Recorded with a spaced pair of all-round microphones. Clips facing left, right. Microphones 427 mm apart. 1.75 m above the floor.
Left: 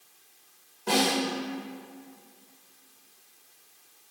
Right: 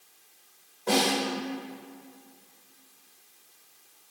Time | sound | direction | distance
0.9 | a snare drum | 25° left (ahead or behind) | 2.5 m